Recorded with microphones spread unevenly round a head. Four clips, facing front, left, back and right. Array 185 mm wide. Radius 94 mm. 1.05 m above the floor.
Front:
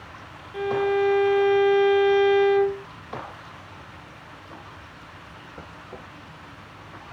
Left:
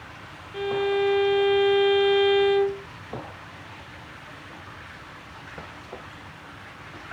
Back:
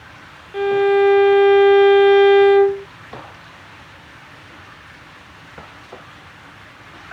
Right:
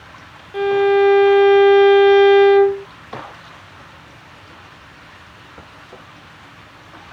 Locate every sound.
0.5 s a violin: 135° right